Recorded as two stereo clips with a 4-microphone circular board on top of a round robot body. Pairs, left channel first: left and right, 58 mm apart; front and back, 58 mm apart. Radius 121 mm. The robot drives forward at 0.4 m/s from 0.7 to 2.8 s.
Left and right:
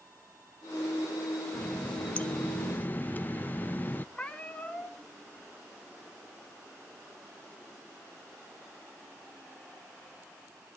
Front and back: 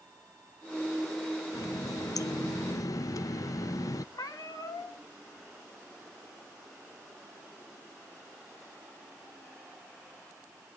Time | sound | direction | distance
1.5 | a running tap | 15° left | 0.9 m
4.2 | a cat meowing | 15° left | 2.5 m